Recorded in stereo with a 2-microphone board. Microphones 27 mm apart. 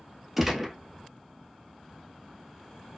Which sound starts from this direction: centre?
A gunshot, at 0.4 s.